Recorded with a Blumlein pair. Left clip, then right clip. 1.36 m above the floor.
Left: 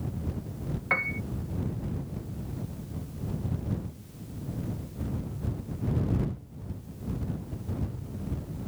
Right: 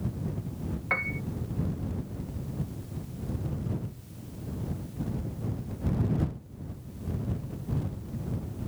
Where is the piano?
5° left.